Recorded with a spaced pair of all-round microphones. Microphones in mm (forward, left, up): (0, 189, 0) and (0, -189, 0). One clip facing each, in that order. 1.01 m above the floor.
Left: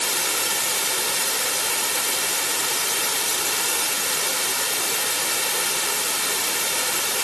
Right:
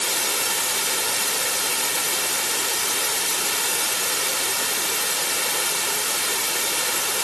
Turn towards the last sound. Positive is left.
No sound to turn to.